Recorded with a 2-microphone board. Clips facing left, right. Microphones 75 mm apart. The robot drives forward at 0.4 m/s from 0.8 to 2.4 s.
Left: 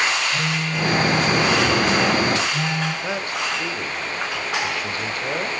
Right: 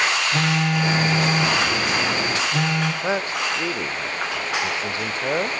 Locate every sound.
0.3 s a phone buzzing: 75° right (ahead or behind), 5.5 m; by 2.9 s 70° right (ahead or behind), 5.5 m
3.0 s a man speaking: 25° right (ahead or behind), 1.0 m